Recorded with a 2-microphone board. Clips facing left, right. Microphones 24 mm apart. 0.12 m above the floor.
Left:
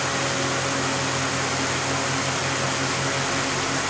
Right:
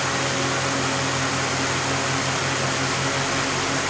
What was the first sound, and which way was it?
Only background noise.